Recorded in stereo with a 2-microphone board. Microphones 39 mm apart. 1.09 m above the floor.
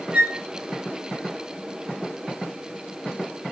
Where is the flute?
45° right (ahead or behind), 1.0 m.